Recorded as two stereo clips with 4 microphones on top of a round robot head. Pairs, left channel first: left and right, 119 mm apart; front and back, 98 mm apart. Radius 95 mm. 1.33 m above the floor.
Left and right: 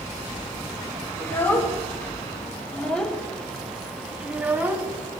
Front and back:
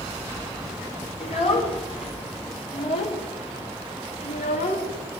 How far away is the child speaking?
About 4 m.